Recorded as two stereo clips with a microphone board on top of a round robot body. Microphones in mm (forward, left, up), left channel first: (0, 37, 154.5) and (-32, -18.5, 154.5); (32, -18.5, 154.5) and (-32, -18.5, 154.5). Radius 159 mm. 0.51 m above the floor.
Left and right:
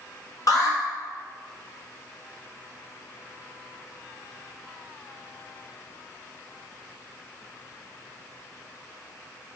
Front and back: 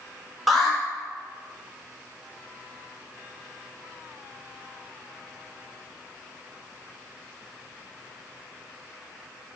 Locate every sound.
0.5 s an alarm: 90° left, 1.7 m